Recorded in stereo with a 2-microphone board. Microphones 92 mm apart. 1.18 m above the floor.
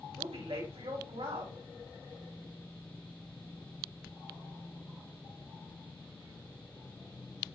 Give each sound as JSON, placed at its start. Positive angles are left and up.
{"t": 0.2, "sound": "a woman speaking", "side_deg": -80, "distance_m": 4.5}